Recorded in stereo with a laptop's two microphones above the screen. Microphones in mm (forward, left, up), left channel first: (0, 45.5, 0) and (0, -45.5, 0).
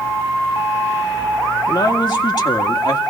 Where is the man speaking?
55° left (ahead or behind), 1.9 m.